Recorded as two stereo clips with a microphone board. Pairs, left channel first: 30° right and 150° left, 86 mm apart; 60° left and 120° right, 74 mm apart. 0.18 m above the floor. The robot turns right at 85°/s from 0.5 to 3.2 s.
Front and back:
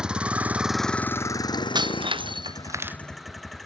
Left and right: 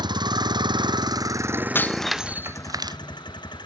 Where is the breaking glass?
120° left; by 3.0 s 135° right.